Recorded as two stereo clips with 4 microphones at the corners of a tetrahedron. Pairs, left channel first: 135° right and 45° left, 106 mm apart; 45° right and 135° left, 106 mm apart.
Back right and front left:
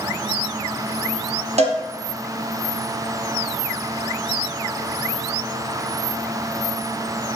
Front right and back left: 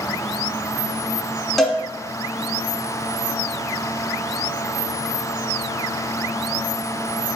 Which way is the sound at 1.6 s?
45° left.